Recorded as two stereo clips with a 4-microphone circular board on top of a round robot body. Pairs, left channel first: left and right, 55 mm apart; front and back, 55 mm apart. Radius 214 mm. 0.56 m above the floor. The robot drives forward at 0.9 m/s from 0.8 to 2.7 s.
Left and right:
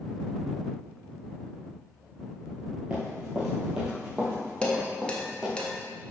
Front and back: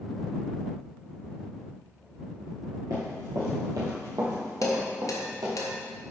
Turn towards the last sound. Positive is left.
turn(degrees=20)